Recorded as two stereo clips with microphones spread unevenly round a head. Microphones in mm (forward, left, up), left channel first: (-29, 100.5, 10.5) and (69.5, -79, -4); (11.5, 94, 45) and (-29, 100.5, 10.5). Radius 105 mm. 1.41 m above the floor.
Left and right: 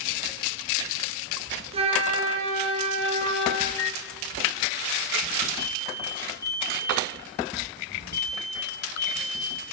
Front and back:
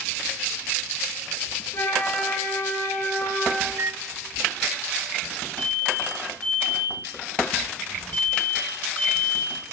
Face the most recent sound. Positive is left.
turn(degrees=45)